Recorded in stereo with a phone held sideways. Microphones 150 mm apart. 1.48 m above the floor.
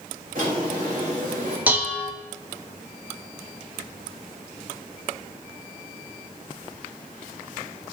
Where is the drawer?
65° right (ahead or behind), 4.5 m.